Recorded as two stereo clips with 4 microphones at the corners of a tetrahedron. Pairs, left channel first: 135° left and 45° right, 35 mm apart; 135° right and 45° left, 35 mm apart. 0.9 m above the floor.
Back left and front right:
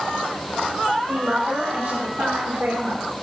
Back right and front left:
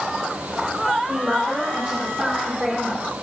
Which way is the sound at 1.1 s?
20° right.